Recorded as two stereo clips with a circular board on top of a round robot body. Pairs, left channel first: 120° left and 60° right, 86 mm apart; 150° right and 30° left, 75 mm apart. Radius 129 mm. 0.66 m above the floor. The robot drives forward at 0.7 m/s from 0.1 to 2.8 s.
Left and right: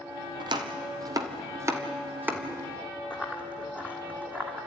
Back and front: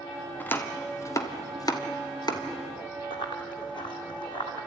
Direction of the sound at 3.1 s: 145° right.